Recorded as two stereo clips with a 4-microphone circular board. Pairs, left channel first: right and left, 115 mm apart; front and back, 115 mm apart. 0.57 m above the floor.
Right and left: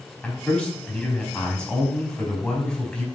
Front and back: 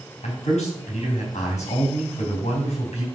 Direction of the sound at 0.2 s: 10° right.